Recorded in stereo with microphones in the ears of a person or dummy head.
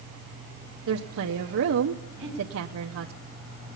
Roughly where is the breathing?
Centre.